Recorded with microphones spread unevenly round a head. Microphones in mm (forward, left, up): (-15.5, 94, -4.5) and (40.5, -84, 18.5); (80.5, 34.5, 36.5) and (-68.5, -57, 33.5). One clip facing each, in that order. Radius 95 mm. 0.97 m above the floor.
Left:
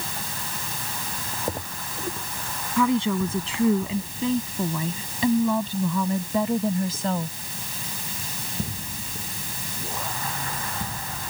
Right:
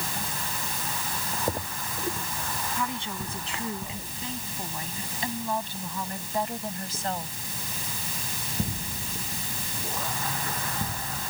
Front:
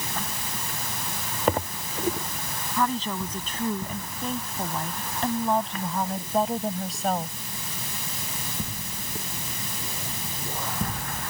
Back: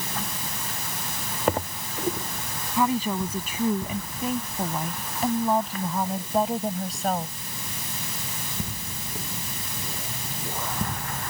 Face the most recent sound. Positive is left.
turn(degrees=120)